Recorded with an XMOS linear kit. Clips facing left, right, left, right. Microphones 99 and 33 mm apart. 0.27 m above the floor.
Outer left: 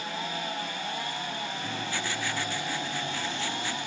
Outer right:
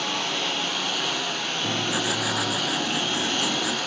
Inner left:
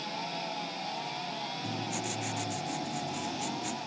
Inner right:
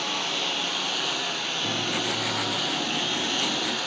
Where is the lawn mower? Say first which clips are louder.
Outer right 5 dB, inner right 9 dB; 80° right; by 3.9 s 75° right (ahead or behind).